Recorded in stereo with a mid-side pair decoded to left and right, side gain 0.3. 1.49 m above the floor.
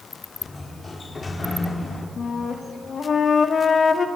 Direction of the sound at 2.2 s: 65° left.